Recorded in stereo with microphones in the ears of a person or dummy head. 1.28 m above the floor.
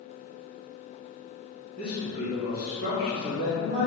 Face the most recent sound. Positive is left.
turn(degrees=-40)  # may be behind; listen again after turning